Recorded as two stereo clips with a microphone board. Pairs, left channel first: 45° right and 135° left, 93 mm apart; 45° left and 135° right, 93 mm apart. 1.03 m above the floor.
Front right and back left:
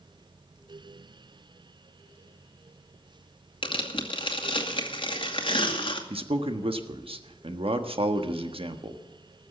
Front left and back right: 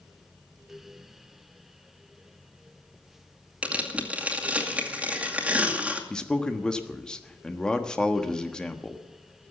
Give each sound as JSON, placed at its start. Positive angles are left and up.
{"t": 3.6, "sound": "tearing paper", "azimuth_deg": -60, "distance_m": 2.0}
{"t": 6.1, "sound": "a man speaking", "azimuth_deg": 130, "distance_m": 1.3}